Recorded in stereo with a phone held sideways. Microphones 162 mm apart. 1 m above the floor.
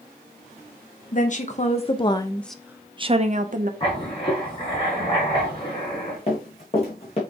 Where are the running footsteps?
40° left (ahead or behind), 3 m.